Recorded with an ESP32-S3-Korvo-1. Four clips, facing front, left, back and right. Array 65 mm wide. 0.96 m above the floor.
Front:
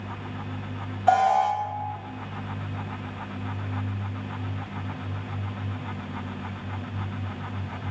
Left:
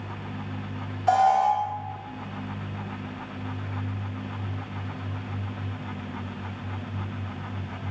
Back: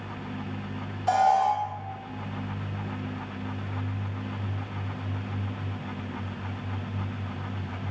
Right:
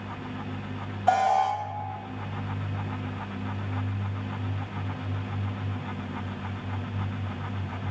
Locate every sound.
1.1 s an alarm: 35° right, 0.8 m